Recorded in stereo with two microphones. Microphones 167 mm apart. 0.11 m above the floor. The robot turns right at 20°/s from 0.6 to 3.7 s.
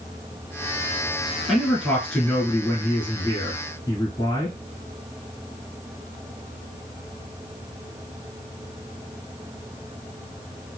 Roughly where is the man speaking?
Centre.